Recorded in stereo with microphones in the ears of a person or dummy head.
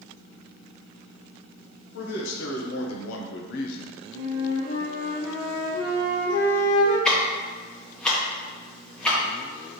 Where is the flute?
25° left (ahead or behind), 1.4 m.